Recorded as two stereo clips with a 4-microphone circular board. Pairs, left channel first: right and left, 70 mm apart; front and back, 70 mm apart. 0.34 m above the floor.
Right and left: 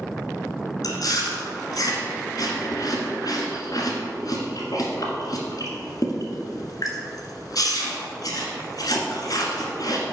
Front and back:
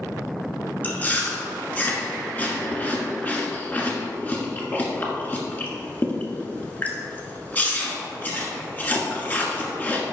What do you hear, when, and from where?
0.8 s chewing: 65° right, 1.5 m